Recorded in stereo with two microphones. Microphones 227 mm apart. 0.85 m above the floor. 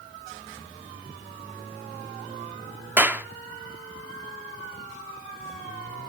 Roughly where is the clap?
Centre.